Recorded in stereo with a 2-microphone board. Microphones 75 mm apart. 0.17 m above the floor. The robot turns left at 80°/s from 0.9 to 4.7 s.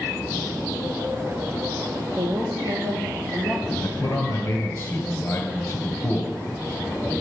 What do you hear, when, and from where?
2.1 s a woman speaking: 45° right, 3.5 m; by 3.7 s 175° right, 3.5 m
3.8 s a man speaking: 115° left, 2 m; by 6.3 s 40° left, 2 m